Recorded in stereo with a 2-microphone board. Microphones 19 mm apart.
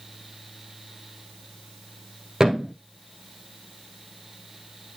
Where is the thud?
25° right (ahead or behind), 1.6 m.